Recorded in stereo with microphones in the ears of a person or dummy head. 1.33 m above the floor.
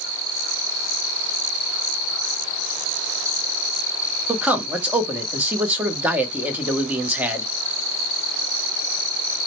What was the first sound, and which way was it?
A man speaking, 10° right (ahead or behind).